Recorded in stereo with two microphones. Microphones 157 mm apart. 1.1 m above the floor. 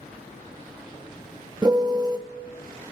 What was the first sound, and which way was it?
A piano, 25° right (ahead or behind).